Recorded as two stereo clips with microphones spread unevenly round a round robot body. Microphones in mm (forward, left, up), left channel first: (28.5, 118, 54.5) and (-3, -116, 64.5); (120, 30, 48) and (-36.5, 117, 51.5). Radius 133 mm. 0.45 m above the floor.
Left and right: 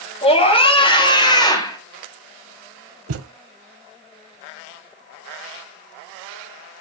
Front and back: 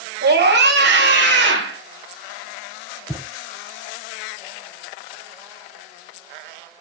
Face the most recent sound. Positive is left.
turn(degrees=-130)